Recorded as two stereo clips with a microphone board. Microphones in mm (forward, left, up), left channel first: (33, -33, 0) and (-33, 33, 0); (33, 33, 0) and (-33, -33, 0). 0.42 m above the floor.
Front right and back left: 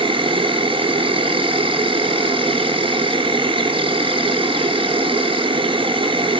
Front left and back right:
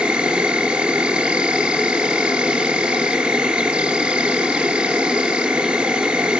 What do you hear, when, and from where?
0.0 s an insect: 145° left, 0.9 m